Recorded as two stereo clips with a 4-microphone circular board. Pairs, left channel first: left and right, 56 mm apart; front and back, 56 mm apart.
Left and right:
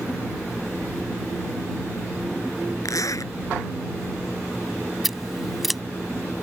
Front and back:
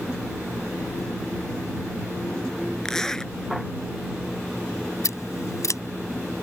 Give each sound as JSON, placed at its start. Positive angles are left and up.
{"t": 2.9, "sound": "a zipper", "azimuth_deg": 80}
{"t": 5.0, "sound": "scissors", "azimuth_deg": 0}